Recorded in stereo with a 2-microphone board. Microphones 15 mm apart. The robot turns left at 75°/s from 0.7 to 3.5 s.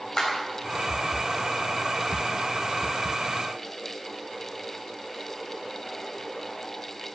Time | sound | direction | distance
0.2 | a clap | 35° left (ahead or behind) | 3.5 m